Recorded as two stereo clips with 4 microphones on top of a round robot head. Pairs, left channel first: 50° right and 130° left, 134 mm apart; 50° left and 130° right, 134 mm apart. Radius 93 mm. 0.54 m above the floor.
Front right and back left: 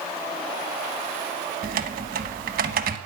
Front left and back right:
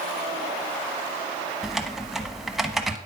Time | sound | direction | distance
1.6 | typing on a keyboard | 145° left | 0.8 m